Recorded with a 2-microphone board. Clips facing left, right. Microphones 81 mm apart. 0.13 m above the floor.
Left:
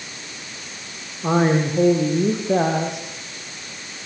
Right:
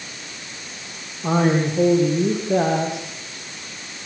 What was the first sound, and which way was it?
A man speaking, 35° left (ahead or behind).